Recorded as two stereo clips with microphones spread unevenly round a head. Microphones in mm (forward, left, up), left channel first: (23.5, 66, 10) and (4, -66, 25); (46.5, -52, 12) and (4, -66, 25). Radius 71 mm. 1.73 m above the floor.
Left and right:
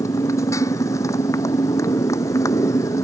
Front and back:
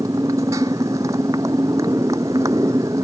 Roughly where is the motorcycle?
Behind left.